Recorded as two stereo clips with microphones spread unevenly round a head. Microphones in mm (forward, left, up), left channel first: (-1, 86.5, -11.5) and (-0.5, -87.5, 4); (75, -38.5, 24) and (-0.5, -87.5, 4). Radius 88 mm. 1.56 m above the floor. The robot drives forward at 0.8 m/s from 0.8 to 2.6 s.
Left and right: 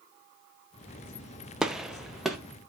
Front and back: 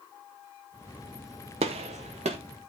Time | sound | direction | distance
1.6 | a gunshot | 170° right | 0.7 m